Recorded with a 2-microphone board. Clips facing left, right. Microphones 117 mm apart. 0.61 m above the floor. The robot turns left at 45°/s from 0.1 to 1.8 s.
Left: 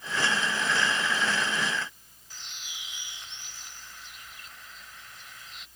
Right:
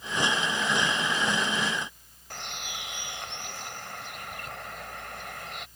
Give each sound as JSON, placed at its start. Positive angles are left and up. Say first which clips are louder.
{"t": 2.3, "sound": "a bird", "louder": "right 9 dB", "side_deg": -65}